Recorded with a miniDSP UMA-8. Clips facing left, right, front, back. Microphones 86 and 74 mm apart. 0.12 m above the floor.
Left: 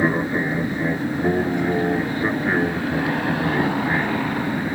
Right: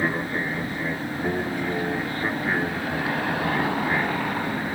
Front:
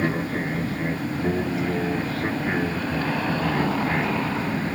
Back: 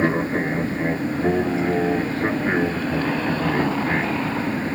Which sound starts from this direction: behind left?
An aircraft, at 0.0 s.